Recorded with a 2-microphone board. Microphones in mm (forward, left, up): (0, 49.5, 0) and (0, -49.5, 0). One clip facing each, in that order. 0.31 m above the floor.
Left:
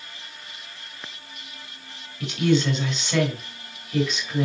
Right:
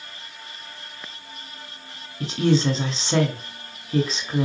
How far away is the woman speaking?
About 1.1 m.